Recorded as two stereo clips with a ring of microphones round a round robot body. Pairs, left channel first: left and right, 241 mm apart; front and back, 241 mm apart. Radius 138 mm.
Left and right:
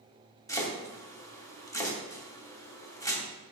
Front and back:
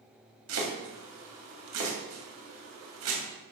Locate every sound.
0.5 s chopping: 165° left, 2.5 m